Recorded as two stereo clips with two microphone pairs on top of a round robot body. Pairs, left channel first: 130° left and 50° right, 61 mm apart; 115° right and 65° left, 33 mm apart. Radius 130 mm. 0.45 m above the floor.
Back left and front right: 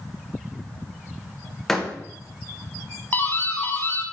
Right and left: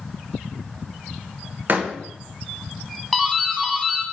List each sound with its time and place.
1.7 s a door slam: 45° left, 1.2 m
3.1 s a doorbell: 145° left, 1.8 m